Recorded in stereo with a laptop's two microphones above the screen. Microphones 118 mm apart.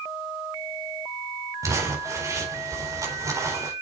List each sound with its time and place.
1.6 s crumpling: 30° right (ahead or behind), 4 m